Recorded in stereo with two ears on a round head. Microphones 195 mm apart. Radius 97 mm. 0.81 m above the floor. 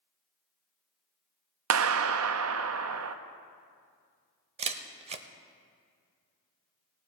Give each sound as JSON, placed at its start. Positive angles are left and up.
{"t": 1.7, "sound": "a clap", "side_deg": -70, "distance_m": 0.5}
{"t": 4.6, "sound": "a camera shutter", "side_deg": -30, "distance_m": 0.6}